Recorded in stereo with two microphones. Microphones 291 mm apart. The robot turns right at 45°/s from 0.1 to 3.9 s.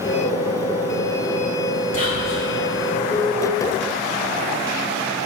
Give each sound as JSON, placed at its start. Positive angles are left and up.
{"t": 1.9, "sound": "whispering", "side_deg": -25, "distance_m": 1.6}